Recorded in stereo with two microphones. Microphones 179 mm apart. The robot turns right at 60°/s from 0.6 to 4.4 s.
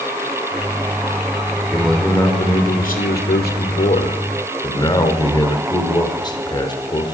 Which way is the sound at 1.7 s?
10° right.